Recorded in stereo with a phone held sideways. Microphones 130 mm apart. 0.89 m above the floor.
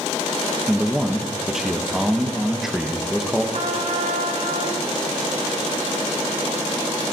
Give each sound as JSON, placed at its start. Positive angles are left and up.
{"t": 0.7, "sound": "a man speaking", "side_deg": -5, "distance_m": 0.9}
{"t": 3.5, "sound": "a trumpet", "side_deg": -65, "distance_m": 1.6}